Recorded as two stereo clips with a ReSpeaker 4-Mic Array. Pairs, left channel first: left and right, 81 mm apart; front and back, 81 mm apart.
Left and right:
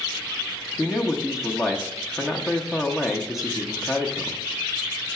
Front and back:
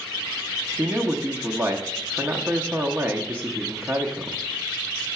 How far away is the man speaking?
About 0.8 m.